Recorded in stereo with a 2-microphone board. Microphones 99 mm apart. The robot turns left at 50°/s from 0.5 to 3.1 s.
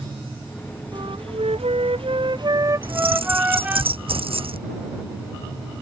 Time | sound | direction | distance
0.9 | a flute | 55° right | ?
2.8 | keys jangling | 65° right (ahead or behind) | ?